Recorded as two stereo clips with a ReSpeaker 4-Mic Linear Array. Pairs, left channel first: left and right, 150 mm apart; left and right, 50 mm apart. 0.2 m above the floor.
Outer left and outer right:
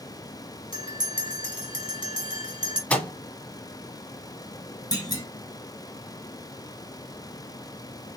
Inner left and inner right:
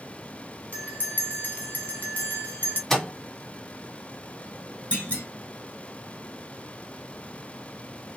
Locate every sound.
0.7 s a bell: 35° left (ahead or behind), 1.4 m
2.9 s a microwave: 10° left (ahead or behind), 0.9 m
4.9 s a clunk: 25° left (ahead or behind), 1.7 m